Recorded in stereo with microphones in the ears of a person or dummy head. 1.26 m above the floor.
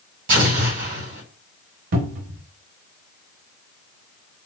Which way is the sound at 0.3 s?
60° right (ahead or behind).